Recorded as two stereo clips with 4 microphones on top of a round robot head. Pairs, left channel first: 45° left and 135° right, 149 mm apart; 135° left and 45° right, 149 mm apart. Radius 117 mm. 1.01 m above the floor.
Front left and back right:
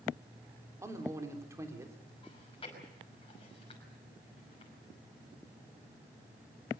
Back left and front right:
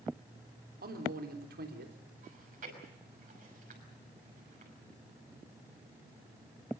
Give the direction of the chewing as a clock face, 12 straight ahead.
12 o'clock.